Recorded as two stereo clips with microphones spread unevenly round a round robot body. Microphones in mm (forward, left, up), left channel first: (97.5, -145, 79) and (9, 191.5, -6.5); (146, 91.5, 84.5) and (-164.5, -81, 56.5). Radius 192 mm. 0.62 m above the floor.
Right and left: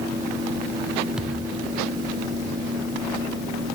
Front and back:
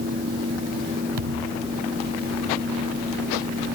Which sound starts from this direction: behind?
A thud, at 1.2 s.